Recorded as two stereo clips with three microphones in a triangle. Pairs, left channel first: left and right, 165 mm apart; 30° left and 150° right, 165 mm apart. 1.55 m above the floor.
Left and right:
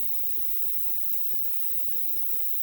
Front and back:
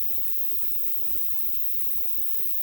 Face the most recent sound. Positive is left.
turn(degrees=90)